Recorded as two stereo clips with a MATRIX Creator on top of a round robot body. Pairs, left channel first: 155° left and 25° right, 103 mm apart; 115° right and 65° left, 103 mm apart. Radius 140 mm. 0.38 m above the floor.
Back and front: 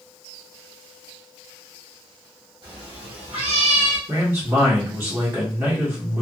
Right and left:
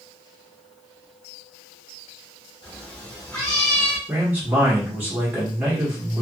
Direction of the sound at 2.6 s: 70° right.